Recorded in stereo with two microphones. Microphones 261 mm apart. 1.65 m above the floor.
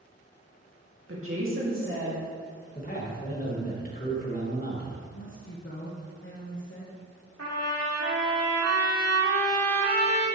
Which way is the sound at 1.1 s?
50° right (ahead or behind).